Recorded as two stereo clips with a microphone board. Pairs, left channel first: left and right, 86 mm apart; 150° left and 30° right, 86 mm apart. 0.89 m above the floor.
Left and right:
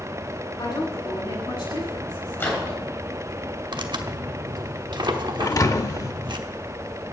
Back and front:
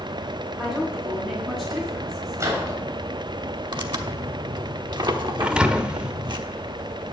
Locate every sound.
0.6 s a woman speaking: 60° left, 7 m
2.4 s a microwave: 25° left, 3 m
3.7 s tearing paper: 60° right, 1.0 m
5.4 s a thud: 45° left, 0.8 m